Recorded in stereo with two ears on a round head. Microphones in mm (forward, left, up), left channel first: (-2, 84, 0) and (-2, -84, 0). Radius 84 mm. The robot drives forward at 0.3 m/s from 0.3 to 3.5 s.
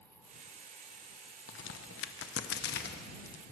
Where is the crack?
75° left (ahead or behind), 0.7 m; by 3.4 s 50° left (ahead or behind), 0.9 m.